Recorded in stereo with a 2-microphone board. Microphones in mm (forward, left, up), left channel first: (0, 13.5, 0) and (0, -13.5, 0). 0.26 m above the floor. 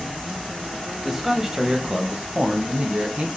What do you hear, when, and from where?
1.0 s a man speaking: 5° right (ahead or behind), 1.3 m; by 3.4 s 50° right (ahead or behind), 1.9 m